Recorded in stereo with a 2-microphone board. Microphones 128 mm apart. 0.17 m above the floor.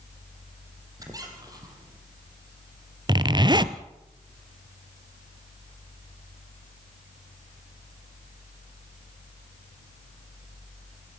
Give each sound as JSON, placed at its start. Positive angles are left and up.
{"t": 1.0, "sound": "a squeak", "side_deg": -30, "distance_m": 3.5}
{"t": 3.1, "sound": "a zipper", "side_deg": -35, "distance_m": 0.8}